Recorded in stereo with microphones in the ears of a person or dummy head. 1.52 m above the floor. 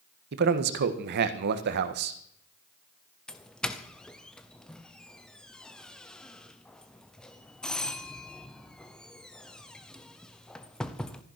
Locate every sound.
0.3 s a man speaking: 50° right (ahead or behind), 1.5 m
3.3 s a doorbell: 10° left (ahead or behind), 0.9 m